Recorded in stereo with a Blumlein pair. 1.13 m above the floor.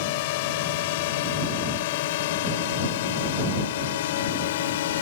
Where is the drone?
50° left; by 5.0 s 55° left.